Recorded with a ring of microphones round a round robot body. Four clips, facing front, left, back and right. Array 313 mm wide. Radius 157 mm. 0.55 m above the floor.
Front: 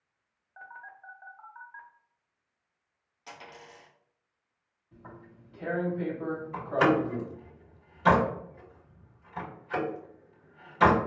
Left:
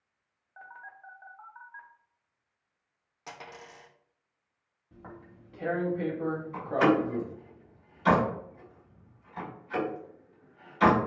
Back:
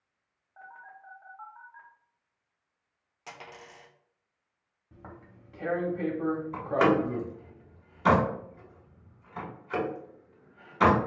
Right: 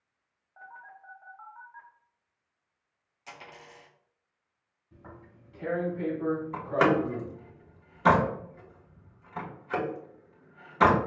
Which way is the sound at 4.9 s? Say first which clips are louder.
Left 2 dB, even; 150° left.